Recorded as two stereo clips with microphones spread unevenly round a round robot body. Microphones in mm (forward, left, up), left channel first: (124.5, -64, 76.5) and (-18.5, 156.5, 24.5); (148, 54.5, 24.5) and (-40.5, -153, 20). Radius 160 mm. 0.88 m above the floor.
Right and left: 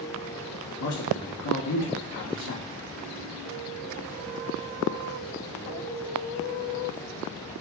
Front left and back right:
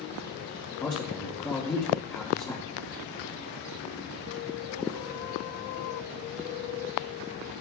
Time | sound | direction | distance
0.8 | a man speaking | 30° right | 1.7 m